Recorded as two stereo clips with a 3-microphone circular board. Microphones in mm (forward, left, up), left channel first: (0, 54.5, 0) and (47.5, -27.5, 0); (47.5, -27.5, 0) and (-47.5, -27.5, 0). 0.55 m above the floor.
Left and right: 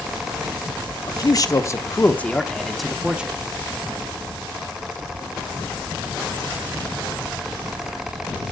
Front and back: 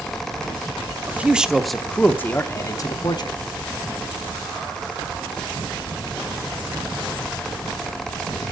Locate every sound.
1.1 s a man speaking: 115° left, 0.9 m; by 3.4 s 15° left, 1.1 m